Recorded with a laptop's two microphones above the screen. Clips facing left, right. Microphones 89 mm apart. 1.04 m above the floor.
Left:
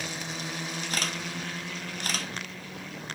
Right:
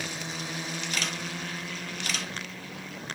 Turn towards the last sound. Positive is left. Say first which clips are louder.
# even
turn(degrees=40)  # may be behind; listen again after turning